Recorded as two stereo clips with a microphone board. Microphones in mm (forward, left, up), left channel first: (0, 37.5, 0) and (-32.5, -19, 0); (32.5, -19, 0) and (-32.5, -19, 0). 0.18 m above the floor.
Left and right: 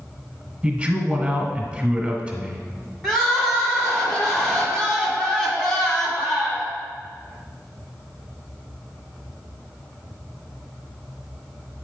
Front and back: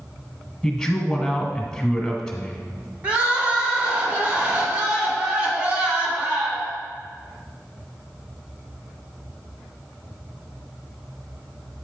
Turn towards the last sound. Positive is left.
turn(degrees=145)